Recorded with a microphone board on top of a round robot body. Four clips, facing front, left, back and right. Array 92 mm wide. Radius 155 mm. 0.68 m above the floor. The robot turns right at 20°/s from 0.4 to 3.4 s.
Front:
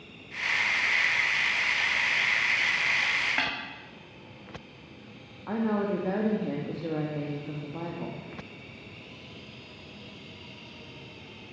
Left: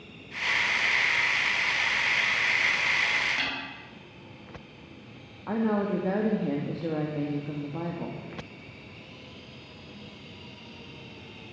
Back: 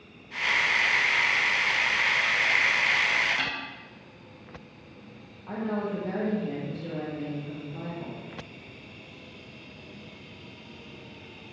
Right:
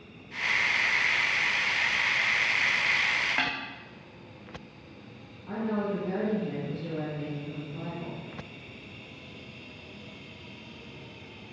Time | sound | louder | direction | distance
3.4 | a snare drum | right 3 dB, front 1 dB | 45° right | 1.8 m
5.5 | a woman speaking | left 4 dB, front 3 dB | 60° left | 1.3 m